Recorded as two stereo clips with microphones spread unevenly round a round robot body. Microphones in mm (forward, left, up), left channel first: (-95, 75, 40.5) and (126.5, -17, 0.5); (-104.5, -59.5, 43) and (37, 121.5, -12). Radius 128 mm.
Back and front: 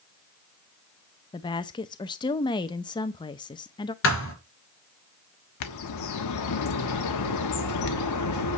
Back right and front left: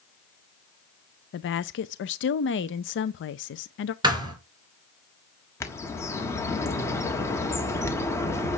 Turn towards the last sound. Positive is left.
turn(degrees=150)